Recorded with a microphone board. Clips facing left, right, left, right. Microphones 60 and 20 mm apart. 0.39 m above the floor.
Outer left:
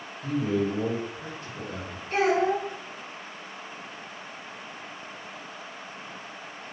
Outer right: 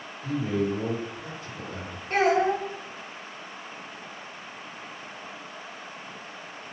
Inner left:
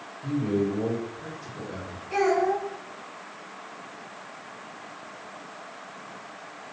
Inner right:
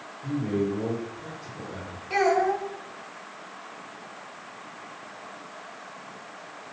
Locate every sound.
0.2 s a man speaking: 45° left (ahead or behind), 1.6 m
2.1 s a child speaking: 45° right (ahead or behind), 1.0 m